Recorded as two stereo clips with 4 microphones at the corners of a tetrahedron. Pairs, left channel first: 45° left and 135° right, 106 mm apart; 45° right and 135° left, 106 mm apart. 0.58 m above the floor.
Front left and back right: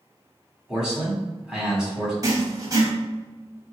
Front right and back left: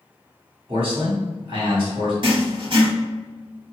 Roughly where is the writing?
Behind.